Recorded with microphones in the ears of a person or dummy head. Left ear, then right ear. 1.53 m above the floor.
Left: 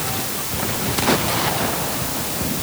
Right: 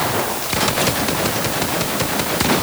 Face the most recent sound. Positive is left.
No sound to turn to.